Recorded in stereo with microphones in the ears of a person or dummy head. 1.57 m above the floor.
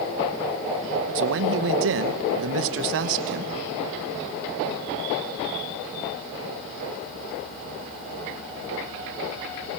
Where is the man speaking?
65° right (ahead or behind), 1.0 m.